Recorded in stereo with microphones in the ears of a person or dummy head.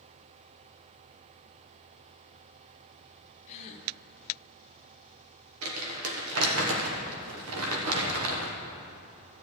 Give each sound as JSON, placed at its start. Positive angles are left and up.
{"t": 3.5, "sound": "a gasp", "side_deg": 35, "distance_m": 1.0}
{"t": 5.6, "sound": "crumpling", "side_deg": -90, "distance_m": 1.3}